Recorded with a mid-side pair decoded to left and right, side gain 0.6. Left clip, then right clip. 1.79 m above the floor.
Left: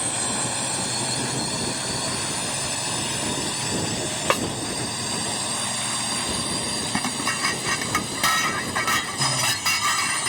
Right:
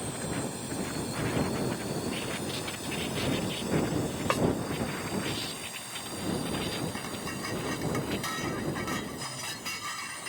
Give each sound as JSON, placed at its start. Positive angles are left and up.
{"t": 0.0, "sound": "a drone", "azimuth_deg": 60}
{"t": 4.3, "sound": "a snare drum", "azimuth_deg": 40}
{"t": 6.9, "sound": "dishes clattering", "azimuth_deg": 60}